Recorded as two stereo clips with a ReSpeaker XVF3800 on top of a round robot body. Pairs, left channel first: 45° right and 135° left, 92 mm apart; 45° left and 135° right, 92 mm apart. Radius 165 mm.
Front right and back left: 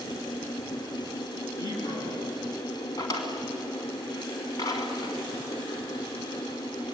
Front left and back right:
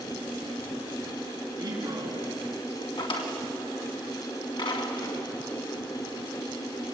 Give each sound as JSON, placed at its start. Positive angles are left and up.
{"t": 1.6, "sound": "a man speaking", "azimuth_deg": -85, "distance_m": 7.5}
{"t": 3.0, "sound": "a drawer", "azimuth_deg": 5, "distance_m": 2.5}